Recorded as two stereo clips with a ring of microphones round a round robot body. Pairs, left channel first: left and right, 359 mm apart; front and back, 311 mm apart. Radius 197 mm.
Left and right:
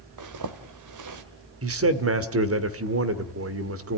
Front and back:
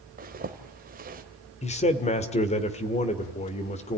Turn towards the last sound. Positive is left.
turn(degrees=-60)